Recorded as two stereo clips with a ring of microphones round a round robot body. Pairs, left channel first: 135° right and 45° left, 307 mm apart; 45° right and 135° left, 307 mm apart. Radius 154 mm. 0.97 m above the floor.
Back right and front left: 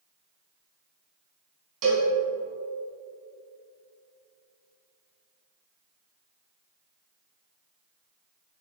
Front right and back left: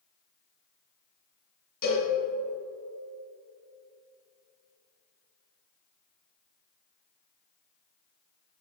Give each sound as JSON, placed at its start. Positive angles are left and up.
{"t": 1.8, "sound": "a cowbell", "azimuth_deg": 15, "distance_m": 3.0}